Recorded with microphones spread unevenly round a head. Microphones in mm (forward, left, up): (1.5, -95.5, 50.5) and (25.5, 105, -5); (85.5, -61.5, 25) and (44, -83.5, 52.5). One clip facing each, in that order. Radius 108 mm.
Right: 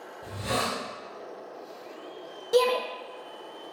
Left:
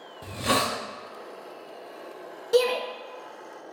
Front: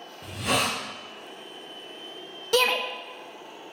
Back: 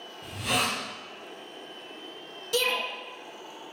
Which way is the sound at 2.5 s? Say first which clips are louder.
Left 1 dB, front 5 dB; 5° right.